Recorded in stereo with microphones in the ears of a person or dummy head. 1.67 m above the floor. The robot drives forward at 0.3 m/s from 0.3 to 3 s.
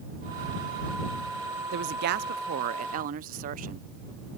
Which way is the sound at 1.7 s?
65° right (ahead or behind).